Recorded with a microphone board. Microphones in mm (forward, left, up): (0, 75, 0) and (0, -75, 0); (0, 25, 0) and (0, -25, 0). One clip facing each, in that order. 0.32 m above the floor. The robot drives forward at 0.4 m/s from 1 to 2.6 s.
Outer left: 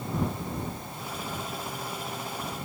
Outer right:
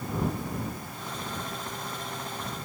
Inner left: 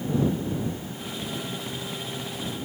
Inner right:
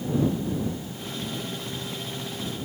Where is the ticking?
I don't hear ticking.